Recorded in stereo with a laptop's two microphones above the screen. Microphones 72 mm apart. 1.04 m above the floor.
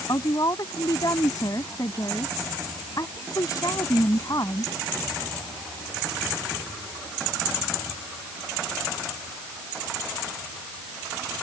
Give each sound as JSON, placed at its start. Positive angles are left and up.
{"t": 0.1, "sound": "a woman speaking", "side_deg": 55}